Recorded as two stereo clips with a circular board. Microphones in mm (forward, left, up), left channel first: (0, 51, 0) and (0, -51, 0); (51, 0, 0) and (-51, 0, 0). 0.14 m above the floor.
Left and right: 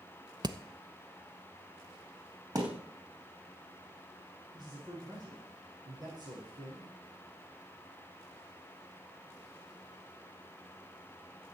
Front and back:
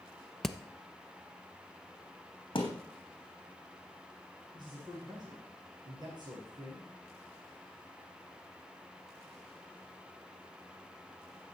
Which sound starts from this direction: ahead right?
A thud, at 2.5 s.